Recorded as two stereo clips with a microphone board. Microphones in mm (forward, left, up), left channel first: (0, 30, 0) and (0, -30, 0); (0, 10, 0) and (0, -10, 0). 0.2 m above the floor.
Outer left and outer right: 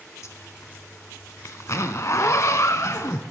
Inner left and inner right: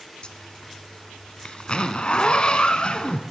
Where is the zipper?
60° left (ahead or behind), 0.6 m.